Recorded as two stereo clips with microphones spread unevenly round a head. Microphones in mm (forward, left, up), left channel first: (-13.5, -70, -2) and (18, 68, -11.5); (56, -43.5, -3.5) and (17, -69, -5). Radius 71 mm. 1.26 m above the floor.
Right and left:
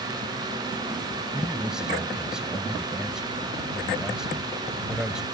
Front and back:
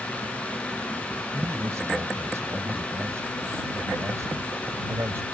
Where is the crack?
I don't hear a crack.